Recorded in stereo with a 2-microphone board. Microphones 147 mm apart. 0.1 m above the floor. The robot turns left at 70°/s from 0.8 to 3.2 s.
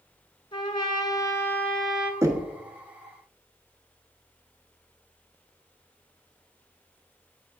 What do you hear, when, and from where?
0.5 s a trumpet: 75° left, 1.3 m; by 2.1 s 15° right, 1.3 m
2.2 s knocking: 20° right (ahead or behind), 1.2 m